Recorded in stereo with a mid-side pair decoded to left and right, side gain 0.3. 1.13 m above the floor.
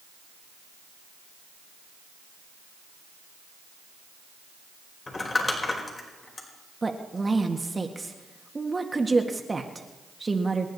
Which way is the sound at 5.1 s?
45° left.